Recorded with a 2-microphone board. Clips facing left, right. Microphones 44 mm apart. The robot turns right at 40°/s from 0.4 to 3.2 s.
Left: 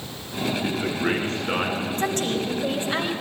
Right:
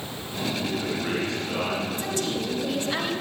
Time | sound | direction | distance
0.6 | a man speaking | 15° left | 9 m
2.0 | a woman speaking | 115° left | 3.5 m